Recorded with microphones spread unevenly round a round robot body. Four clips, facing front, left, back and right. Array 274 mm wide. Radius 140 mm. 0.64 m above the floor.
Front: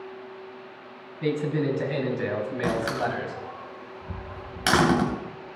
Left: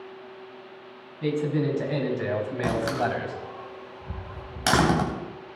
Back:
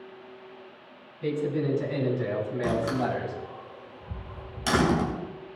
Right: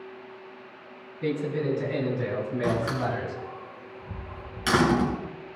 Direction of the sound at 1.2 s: 40° left.